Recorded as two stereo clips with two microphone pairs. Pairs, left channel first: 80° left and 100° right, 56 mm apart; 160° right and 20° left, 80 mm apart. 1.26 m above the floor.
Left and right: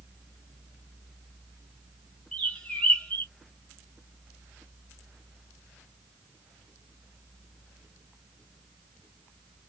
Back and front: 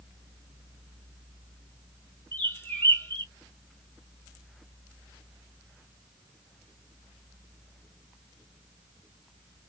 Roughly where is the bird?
Behind left.